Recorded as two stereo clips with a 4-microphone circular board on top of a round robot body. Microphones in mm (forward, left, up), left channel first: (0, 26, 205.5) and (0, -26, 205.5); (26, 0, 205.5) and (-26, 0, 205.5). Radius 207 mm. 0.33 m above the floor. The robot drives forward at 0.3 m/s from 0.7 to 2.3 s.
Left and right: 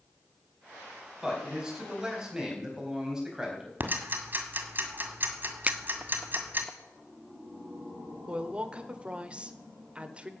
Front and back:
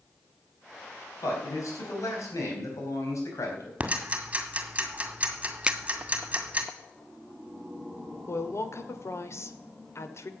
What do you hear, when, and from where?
1.2 s a man speaking: 10° right, 4.5 m
3.8 s ticking: 125° right, 2 m
5.7 s a finger snap: 125° right, 0.7 m
8.3 s a woman speaking: 25° right, 1.6 m